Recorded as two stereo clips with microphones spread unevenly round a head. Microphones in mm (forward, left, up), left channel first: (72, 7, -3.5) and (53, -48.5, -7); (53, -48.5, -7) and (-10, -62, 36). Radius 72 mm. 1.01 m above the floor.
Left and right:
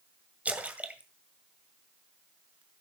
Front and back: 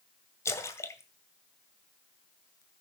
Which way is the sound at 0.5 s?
45° right.